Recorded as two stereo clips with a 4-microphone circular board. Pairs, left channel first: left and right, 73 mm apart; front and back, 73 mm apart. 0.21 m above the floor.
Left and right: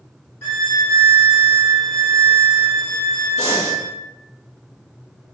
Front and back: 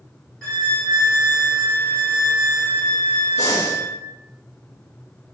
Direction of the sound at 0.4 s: 70° left.